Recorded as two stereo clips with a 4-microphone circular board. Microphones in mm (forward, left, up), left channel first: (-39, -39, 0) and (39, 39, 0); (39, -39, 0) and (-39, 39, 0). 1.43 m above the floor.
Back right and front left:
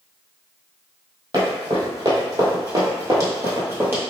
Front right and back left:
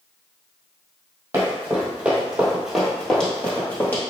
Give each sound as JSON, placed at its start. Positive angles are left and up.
{"t": 1.3, "sound": "running footsteps", "azimuth_deg": 75, "distance_m": 1.9}